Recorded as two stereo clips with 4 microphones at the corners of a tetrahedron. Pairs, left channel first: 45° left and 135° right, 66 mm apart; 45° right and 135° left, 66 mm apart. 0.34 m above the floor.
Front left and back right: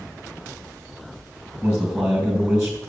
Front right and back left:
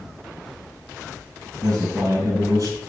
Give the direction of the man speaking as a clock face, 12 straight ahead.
7 o'clock.